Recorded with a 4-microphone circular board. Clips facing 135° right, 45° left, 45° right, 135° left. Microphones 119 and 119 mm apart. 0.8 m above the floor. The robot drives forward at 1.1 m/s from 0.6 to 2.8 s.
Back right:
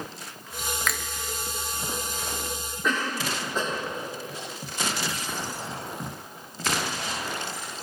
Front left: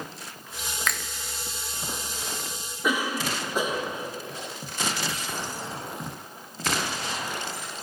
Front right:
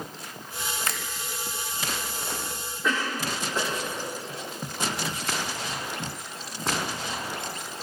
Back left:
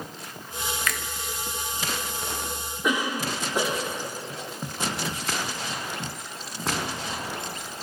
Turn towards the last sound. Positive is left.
turn(degrees=95)